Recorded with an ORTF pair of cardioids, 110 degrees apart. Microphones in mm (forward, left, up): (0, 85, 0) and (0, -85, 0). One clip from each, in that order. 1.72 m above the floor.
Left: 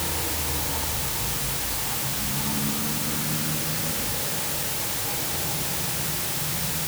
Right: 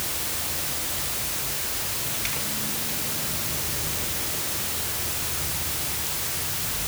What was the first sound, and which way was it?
Only background noise.